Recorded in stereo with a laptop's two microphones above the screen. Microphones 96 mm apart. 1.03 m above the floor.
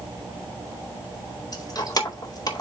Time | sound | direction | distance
1.5 | keys jangling | 45° left (ahead or behind) | 2.5 m